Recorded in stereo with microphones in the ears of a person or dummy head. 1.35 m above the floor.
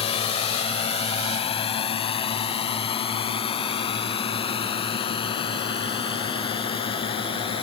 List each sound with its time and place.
0.0 s a drone: 30° left (ahead or behind)